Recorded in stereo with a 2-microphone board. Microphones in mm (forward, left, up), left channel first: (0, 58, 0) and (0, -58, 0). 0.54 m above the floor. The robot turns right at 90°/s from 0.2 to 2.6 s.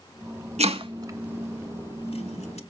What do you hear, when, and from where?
0.6 s chopping: 75° right (ahead or behind), 1.3 m; by 2.6 s 75° left (ahead or behind), 1.3 m